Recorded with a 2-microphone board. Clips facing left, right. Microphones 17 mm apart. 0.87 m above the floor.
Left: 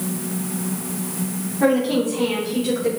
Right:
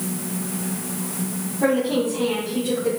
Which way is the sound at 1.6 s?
30° left (ahead or behind).